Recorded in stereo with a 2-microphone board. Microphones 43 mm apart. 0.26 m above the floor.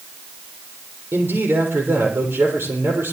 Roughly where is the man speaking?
Right.